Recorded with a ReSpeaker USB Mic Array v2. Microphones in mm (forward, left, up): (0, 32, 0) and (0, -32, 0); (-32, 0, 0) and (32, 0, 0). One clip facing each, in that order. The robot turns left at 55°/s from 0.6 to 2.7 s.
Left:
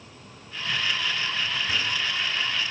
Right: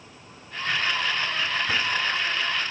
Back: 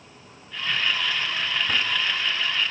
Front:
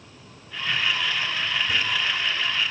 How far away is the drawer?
About 1.2 m.